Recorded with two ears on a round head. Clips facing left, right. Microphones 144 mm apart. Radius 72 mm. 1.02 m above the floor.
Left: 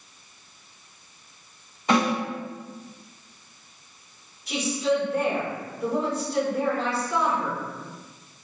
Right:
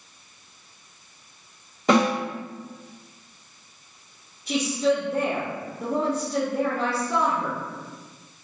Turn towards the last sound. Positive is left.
turn(degrees=-65)  # may be behind; listen again after turning